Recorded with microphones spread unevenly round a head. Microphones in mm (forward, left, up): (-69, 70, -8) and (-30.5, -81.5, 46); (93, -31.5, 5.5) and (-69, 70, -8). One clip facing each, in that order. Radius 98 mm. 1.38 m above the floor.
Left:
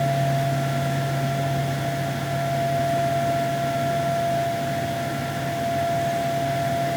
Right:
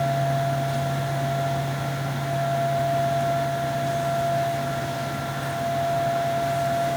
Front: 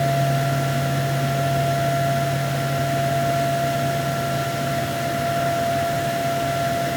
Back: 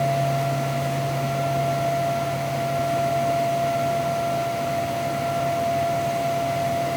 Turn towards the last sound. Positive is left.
No sound to turn to.